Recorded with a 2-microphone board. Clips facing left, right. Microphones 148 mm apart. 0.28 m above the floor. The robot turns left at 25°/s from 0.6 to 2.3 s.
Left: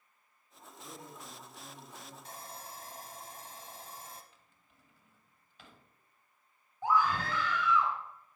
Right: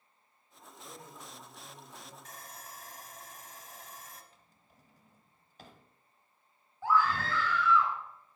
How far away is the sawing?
About 0.8 m.